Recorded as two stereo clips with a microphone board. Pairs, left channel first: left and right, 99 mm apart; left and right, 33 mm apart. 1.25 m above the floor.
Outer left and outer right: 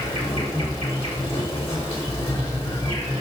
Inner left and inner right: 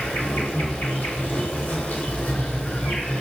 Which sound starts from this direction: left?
An insect, at 0.0 s.